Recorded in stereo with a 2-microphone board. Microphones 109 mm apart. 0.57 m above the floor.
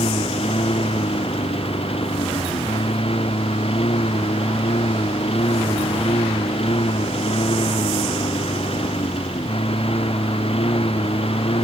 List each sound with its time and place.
0.0 s a lawn mower: 65° left (ahead or behind)